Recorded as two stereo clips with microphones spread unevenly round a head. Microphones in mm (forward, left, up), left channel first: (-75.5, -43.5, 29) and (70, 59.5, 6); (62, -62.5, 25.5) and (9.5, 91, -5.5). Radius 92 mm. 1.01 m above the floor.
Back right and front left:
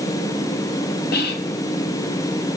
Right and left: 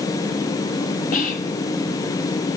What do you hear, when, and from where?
1.1 s whispering: 115° right, 1.0 m